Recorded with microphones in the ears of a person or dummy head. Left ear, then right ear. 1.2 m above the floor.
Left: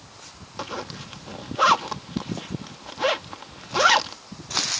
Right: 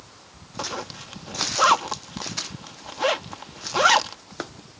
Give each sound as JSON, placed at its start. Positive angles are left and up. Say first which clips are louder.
{"t": 0.6, "sound": "a zipper", "louder": "right 1 dB", "side_deg": 0}